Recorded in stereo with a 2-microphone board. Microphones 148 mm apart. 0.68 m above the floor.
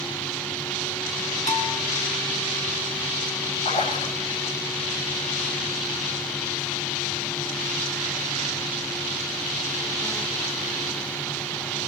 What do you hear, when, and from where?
1.5 s a bell: 55° left (ahead or behind), 5 m
3.6 s a splash: 55° left (ahead or behind), 8 m